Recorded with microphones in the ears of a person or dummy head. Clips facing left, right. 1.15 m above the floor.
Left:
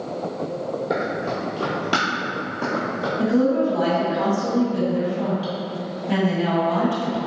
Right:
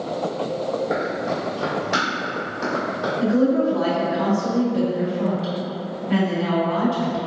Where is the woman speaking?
85° left, 1.6 m.